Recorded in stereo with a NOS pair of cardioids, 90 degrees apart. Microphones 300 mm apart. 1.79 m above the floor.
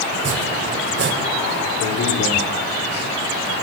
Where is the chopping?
40° right, 6.5 m.